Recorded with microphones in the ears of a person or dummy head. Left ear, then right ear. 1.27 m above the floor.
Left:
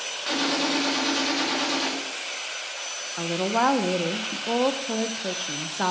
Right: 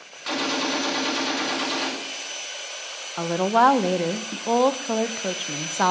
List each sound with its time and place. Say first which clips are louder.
0.3 s a gunshot: even; centre (ahead or behind), 2.0 m
3.2 s a woman speaking: right 5 dB; 20° right (ahead or behind), 0.6 m